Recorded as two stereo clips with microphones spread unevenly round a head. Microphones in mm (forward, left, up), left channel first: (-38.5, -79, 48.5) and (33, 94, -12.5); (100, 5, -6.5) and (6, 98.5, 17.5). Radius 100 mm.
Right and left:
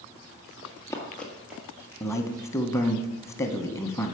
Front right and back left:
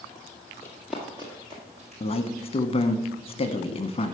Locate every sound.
0.6 s running footsteps: 130° right, 1.3 m; by 2.5 s 145° left, 2.5 m
2.0 s a man speaking: 25° right, 0.8 m